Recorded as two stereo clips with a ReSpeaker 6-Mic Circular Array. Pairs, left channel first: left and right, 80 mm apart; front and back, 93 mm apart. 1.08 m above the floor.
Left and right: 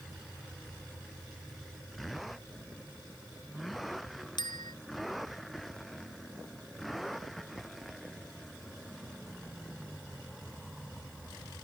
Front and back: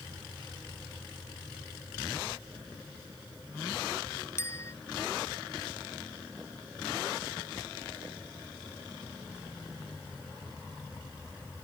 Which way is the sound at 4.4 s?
60° left.